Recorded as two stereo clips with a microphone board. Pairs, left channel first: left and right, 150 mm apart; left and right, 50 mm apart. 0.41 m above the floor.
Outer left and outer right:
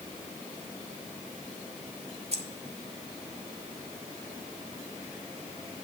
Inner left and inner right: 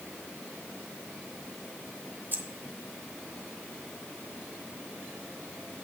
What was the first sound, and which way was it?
Keys jangling, 50° right (ahead or behind).